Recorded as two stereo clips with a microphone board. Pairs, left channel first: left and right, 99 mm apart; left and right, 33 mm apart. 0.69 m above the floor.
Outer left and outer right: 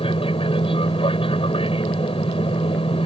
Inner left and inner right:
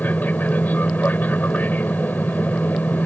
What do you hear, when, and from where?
0.0 s an aircraft: 65° left (ahead or behind)